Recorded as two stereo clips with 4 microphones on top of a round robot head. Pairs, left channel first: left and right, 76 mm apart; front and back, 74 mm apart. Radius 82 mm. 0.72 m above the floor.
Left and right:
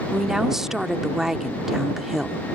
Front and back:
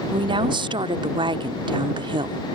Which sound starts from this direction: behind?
A woman speaking, at 0.1 s.